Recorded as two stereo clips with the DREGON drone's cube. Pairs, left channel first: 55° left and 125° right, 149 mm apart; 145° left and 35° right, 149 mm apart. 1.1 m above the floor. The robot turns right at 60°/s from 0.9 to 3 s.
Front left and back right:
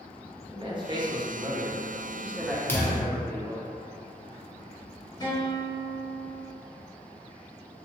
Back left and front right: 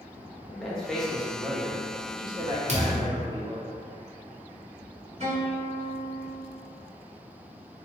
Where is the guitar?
5° right, 1.1 m.